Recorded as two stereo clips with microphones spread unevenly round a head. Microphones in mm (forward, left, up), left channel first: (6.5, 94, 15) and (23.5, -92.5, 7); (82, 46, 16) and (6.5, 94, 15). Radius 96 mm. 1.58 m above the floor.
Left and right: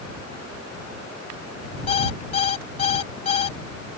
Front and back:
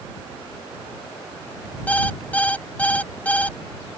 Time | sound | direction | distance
1.9 | an alarm clock | 40° left | ?